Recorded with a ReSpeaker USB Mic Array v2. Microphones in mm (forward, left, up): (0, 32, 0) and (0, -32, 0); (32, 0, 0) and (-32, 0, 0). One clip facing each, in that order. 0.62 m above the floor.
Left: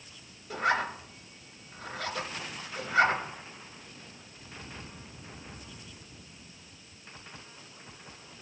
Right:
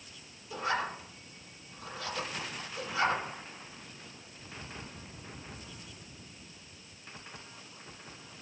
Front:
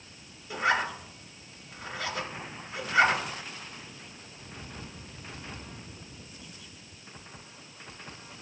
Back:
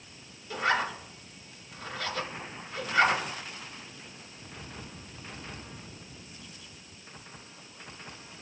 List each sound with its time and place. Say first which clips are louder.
0.5 s a zipper: left 4 dB, front 1 dB; 75° left, 2 m